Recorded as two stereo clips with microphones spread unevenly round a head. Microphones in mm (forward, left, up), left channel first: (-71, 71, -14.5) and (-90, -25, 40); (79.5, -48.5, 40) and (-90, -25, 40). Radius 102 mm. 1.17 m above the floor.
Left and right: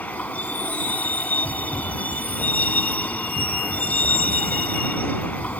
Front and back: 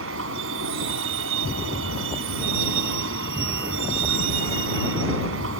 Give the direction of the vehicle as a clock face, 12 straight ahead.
7 o'clock.